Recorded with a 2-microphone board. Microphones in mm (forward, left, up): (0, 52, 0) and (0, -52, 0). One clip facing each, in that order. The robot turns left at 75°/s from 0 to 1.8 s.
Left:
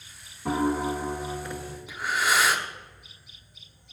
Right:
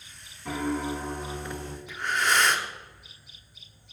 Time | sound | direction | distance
0.5 | a piano | 55° left | 0.8 m
1.9 | breathing | 5° left (ahead or behind) | 0.7 m